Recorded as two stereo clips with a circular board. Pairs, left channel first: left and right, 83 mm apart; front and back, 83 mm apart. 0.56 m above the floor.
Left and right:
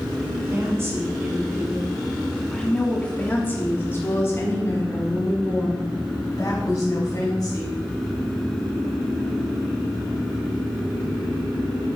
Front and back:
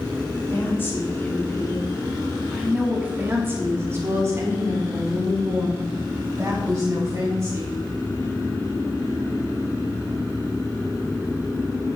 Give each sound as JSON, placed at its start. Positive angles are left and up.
{"t": 0.5, "sound": "a woman speaking", "azimuth_deg": -50, "distance_m": 1.5}